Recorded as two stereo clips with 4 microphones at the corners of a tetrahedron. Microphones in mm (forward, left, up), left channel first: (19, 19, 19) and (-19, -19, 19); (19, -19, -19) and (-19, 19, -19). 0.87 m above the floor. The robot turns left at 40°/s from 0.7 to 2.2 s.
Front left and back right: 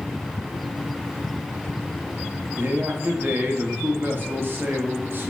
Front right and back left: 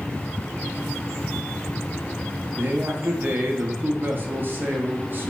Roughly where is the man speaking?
Behind.